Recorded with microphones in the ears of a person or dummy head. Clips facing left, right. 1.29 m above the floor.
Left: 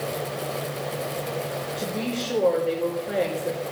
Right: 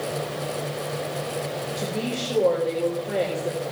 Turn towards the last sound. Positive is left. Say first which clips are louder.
# even
turn(degrees=-15)  # may be behind; listen again after turning